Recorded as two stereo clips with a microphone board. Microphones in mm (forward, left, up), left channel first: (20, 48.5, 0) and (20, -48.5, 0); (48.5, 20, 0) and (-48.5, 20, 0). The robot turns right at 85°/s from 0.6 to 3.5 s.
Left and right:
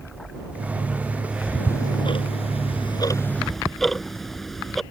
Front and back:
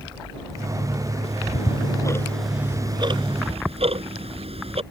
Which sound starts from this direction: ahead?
Ticking, at 1.2 s.